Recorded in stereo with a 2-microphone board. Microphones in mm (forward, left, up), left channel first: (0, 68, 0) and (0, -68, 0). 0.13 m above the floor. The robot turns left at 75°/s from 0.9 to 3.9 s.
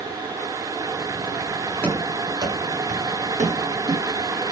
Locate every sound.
1.8 s running footsteps: 15° left (ahead or behind), 9 m; by 4.4 s 30° right (ahead or behind), 8.5 m